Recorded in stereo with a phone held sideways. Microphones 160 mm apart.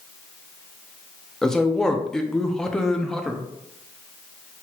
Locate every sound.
1.4 s a man speaking: 5° left (ahead or behind), 0.6 m